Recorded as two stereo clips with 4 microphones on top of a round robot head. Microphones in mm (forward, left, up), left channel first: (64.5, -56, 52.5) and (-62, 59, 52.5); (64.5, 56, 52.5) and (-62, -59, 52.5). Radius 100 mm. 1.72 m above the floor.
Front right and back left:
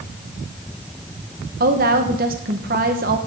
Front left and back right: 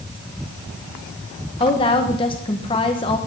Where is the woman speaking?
105° left, 1.2 m.